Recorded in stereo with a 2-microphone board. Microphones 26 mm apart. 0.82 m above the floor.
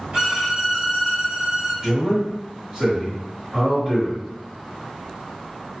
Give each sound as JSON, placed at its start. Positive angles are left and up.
{"t": 0.1, "sound": "a violin", "side_deg": -45, "distance_m": 1.3}
{"t": 1.8, "sound": "a man speaking", "side_deg": -30, "distance_m": 1.2}